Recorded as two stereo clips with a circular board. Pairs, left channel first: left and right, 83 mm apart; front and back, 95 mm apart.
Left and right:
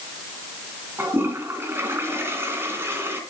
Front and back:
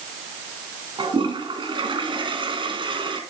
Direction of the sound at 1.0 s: 150° right.